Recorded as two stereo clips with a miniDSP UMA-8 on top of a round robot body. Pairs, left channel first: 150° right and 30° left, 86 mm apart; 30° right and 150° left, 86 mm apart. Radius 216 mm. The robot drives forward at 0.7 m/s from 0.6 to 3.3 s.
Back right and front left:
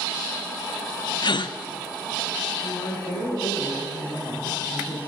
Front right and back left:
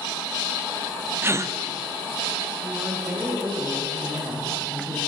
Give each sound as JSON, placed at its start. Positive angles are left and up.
{"t": 1.2, "sound": "a gasp", "azimuth_deg": -155, "distance_m": 0.5}
{"t": 2.6, "sound": "a woman speaking", "azimuth_deg": -155, "distance_m": 3.5}